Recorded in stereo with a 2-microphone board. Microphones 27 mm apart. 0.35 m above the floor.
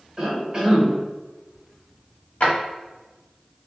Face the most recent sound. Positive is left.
turn(degrees=55)  # may be behind; listen again after turning